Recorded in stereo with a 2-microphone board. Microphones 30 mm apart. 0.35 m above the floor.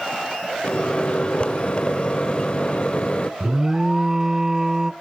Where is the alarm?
15° right (ahead or behind), 0.7 m.